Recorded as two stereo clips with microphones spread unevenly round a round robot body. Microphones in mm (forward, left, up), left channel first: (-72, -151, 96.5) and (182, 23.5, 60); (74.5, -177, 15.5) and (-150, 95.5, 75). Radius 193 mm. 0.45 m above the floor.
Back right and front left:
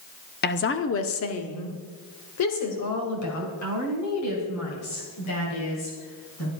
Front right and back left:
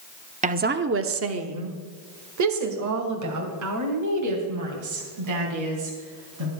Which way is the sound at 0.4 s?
165° right.